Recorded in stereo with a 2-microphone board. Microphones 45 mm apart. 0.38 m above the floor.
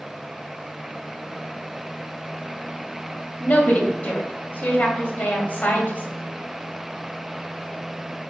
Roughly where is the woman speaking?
Left.